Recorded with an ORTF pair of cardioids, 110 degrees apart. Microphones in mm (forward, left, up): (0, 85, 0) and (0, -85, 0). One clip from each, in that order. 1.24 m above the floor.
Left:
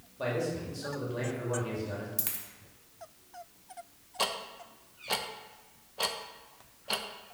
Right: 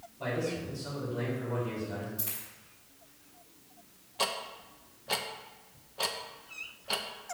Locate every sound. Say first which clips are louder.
0.2 s a man speaking: left 1 dB; 70° left, 3 m
2.2 s a dropped coin: left 1 dB; 65° left, 1.7 m
4.2 s ticking: even; 5° left, 0.6 m